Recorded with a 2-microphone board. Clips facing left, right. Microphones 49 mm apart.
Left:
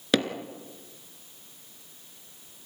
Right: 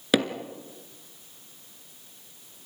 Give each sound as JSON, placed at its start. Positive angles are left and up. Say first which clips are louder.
{"t": 0.1, "sound": "hammering", "louder": "right 1 dB", "side_deg": -5, "distance_m": 2.0}